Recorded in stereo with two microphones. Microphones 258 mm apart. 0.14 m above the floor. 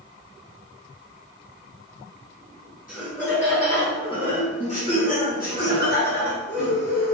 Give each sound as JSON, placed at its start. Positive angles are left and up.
{"t": 2.9, "sound": "laughter", "side_deg": 5, "distance_m": 1.5}